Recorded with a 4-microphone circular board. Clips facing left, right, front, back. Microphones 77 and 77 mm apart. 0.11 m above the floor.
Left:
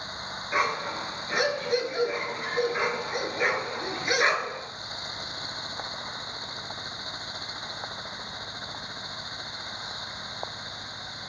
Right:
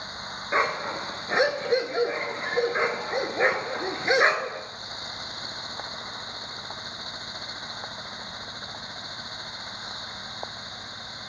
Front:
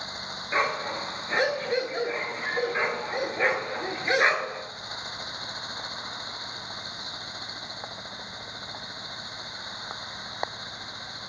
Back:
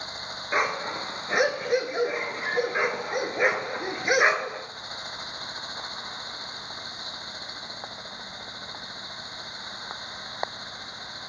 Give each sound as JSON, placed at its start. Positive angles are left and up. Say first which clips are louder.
{"t": 0.5, "sound": "a dog barking", "louder": "right 2 dB, even", "azimuth_deg": -115, "distance_m": 0.7}